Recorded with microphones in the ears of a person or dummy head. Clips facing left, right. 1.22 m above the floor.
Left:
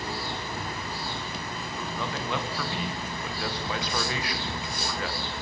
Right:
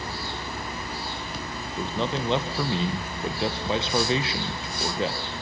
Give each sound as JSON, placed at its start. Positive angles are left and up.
{"t": 1.8, "sound": "a man speaking", "side_deg": -25, "distance_m": 1.0}